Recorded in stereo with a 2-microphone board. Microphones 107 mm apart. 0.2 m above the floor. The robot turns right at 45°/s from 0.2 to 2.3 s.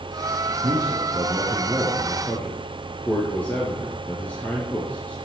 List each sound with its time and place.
0.6 s a man speaking: 60° right, 4.5 m; by 5.2 s 15° left, 4.5 m